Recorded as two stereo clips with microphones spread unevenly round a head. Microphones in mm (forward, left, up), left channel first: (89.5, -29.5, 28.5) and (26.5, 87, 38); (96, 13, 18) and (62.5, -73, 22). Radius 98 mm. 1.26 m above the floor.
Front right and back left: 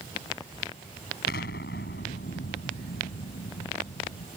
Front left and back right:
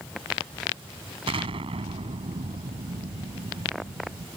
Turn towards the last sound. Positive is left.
turn(degrees=-100)